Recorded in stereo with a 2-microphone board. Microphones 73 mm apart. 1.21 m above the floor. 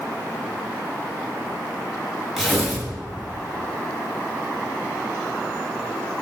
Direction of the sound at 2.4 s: 5° right (ahead or behind).